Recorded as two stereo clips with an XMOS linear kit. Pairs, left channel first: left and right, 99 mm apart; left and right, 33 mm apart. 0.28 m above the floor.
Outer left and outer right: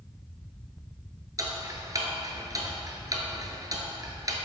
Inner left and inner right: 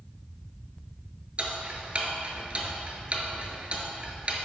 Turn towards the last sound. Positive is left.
turn(degrees=-35)  # may be behind; listen again after turning